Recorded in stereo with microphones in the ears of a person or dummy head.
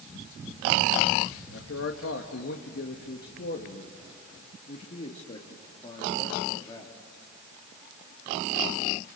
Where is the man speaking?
75° left (ahead or behind), 2 m; by 7.0 s 25° left (ahead or behind), 3 m.